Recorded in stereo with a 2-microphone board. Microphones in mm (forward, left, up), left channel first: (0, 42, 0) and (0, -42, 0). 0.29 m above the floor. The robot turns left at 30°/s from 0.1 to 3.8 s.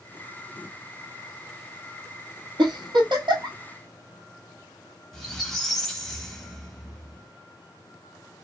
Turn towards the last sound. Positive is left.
turn(degrees=5)  # may be behind; listen again after turning